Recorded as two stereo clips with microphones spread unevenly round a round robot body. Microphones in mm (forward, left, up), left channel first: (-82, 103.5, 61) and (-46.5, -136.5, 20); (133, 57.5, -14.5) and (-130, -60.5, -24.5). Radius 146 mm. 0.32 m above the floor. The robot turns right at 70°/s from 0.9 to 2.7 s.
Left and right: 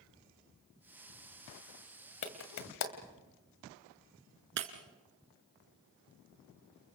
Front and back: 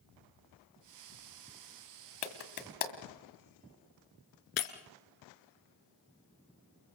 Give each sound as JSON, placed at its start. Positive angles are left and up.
{"t": 2.2, "sound": "a clap", "azimuth_deg": 50, "distance_m": 2.0}
{"t": 4.6, "sound": "breaking glass", "azimuth_deg": -30, "distance_m": 1.8}